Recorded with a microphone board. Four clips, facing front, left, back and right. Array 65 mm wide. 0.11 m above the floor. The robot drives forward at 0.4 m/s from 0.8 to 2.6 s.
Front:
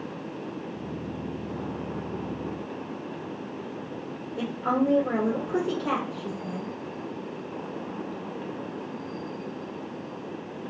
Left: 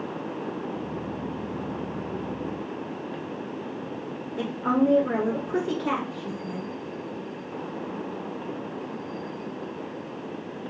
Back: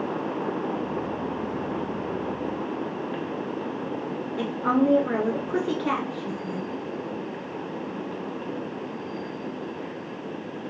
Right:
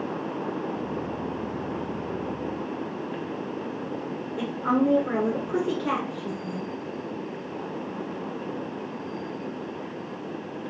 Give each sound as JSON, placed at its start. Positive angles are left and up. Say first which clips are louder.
{"t": 4.4, "sound": "a woman speaking", "louder": "left 1 dB, back 3 dB", "azimuth_deg": 175, "distance_m": 1.2}